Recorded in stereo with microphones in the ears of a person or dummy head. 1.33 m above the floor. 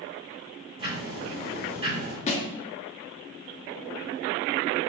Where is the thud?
40° left (ahead or behind), 1.2 m.